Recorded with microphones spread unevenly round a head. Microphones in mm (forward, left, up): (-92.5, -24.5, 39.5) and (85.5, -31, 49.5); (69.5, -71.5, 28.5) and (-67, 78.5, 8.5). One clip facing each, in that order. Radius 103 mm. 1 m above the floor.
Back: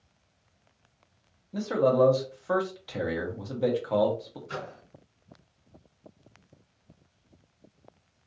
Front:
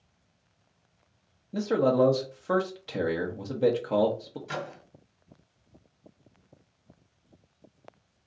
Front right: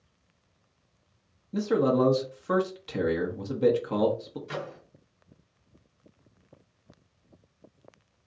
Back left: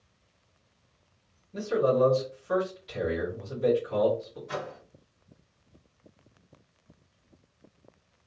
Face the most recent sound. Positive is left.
turn(degrees=10)